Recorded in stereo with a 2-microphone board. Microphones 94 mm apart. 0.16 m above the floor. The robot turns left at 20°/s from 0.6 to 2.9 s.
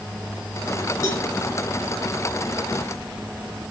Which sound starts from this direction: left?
A cowbell, at 1.0 s.